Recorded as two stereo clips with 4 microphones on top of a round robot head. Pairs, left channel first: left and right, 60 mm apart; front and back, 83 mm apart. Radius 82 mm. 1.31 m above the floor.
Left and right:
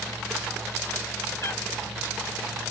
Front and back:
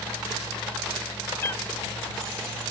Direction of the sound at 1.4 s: 40° left.